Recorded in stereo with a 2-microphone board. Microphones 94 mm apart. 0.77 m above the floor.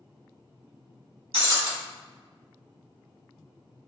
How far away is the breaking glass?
About 1.3 m.